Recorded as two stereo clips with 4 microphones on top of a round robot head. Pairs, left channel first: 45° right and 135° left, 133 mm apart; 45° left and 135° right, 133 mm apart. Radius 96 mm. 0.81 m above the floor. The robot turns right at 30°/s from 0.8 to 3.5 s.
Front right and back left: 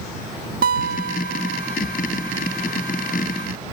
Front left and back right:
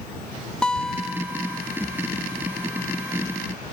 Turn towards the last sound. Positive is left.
turn(degrees=-150)